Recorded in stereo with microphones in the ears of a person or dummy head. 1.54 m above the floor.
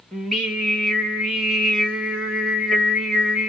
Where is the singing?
5° left (ahead or behind), 1.3 m.